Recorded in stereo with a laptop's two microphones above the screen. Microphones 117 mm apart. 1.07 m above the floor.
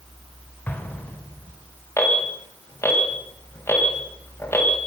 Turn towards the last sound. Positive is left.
turn(degrees=20)  # may be behind; listen again after turning